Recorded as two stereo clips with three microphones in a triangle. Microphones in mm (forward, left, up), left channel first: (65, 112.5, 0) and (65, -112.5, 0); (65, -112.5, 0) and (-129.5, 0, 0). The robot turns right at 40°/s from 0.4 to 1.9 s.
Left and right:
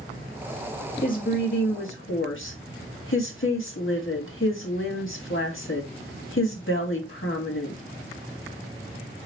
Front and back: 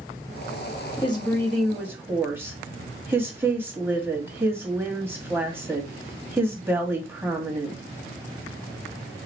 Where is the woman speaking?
35° left, 1.6 m; by 7.8 s 70° left, 1.6 m.